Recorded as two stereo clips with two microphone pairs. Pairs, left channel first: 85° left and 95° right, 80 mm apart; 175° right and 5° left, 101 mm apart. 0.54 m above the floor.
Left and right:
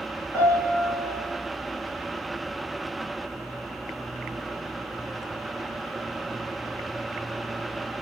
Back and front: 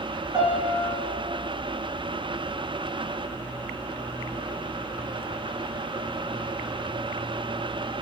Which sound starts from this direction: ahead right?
A piano, at 0.3 s.